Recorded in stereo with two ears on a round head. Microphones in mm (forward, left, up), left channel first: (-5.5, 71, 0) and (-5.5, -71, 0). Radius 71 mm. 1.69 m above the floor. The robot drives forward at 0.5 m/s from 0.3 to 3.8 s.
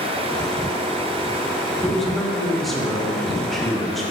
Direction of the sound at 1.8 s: Centre (ahead or behind).